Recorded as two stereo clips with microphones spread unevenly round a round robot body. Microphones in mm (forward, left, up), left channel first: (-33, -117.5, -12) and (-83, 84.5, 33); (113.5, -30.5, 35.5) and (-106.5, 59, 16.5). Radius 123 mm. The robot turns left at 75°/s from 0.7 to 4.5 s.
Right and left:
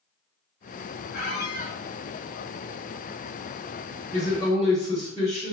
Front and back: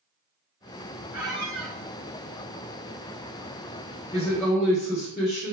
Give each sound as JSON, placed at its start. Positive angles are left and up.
{"t": 1.1, "sound": "a squeak", "azimuth_deg": -100, "distance_m": 1.1}
{"t": 4.1, "sound": "a woman speaking", "azimuth_deg": 0, "distance_m": 1.2}